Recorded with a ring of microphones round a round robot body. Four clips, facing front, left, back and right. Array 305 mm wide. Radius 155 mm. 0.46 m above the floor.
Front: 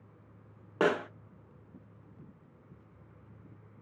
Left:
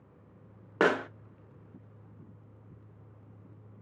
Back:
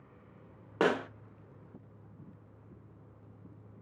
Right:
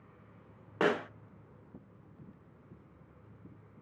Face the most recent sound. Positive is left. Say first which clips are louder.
# left 4 dB, front 1 dB
turn(degrees=95)